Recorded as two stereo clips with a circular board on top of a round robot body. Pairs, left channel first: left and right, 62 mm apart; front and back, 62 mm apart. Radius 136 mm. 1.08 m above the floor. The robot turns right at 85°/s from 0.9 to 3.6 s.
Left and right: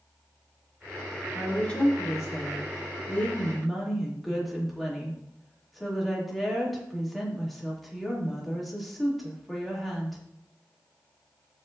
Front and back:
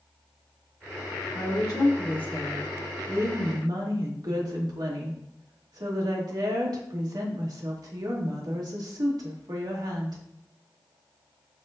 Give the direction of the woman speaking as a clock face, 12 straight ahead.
12 o'clock.